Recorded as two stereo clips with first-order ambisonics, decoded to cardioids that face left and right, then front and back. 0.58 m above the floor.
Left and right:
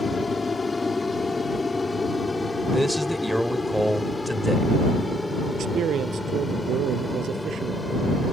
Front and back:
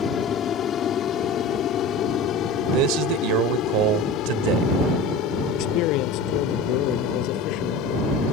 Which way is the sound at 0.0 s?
25° left.